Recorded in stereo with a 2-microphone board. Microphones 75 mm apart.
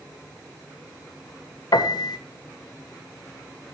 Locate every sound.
1.7 s a piano: 65° left (ahead or behind), 0.6 m